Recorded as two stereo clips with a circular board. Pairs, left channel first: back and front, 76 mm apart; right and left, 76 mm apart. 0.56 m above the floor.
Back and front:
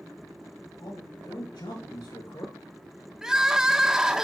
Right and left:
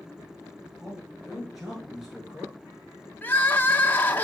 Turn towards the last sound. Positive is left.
turn(degrees=-75)